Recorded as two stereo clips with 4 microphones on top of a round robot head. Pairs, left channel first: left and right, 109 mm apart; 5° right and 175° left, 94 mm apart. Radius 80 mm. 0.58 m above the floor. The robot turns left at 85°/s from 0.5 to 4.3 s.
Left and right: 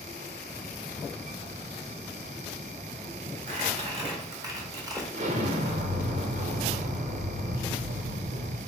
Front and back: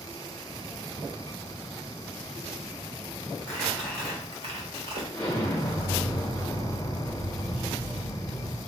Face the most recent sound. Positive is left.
turn(degrees=-85)